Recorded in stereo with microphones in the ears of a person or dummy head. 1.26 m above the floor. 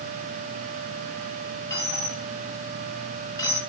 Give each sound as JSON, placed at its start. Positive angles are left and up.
{"t": 1.7, "sound": "a dropped coin", "side_deg": 20, "distance_m": 2.5}